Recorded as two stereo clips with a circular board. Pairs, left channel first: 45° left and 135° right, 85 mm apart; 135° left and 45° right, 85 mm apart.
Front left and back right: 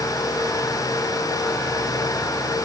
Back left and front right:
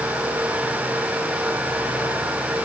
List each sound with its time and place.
Only background noise.